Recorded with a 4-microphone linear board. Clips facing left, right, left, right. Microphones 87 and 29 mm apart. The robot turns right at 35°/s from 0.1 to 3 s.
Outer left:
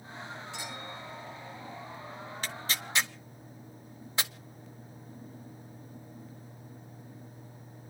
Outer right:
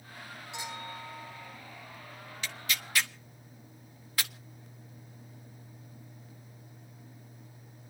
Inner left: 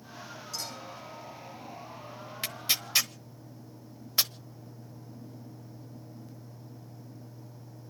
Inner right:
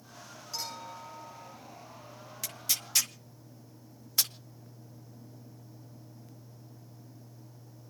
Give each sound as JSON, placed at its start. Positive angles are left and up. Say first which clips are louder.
{"t": 0.5, "sound": "a clink", "louder": "outer right 1 dB, inner right 2 dB", "azimuth_deg": -160, "distance_m": 8.5}
{"t": 2.4, "sound": "tearing paper", "louder": "even, inner left 4 dB", "side_deg": 40, "distance_m": 0.9}